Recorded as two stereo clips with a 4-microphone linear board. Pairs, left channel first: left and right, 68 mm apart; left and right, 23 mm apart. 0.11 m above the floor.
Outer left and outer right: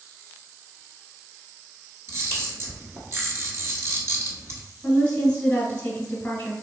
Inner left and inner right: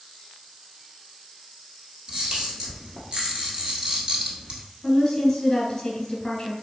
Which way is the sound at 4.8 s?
15° left (ahead or behind).